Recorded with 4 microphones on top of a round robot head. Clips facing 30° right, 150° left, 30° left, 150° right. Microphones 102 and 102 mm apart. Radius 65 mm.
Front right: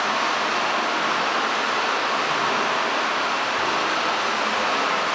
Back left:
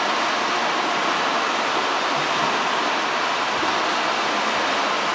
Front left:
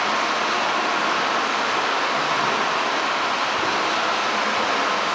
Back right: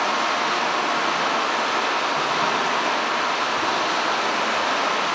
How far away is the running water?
About 1.7 m.